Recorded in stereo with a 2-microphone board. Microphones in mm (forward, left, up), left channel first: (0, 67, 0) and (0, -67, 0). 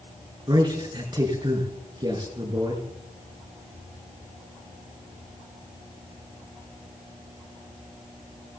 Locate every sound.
0.5 s a man speaking: 35° right (ahead or behind), 6 m